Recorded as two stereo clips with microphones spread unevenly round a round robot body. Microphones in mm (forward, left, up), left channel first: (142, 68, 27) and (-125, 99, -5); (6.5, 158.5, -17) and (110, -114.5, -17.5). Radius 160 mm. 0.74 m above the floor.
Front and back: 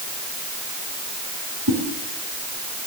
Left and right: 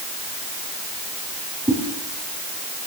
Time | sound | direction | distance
1.7 | a whoosh | 145° right | 5.5 m